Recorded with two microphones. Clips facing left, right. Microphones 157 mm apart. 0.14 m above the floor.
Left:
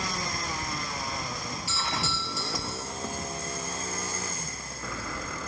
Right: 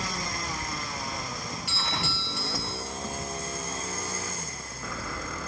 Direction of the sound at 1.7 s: 65° right (ahead or behind).